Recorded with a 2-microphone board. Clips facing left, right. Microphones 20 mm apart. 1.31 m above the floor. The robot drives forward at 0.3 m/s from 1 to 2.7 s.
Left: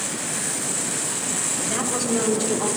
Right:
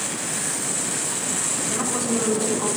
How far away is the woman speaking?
About 6.5 m.